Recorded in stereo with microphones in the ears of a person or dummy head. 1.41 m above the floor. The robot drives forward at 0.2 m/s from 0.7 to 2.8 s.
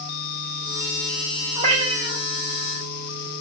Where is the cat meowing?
35° right (ahead or behind), 1.5 m.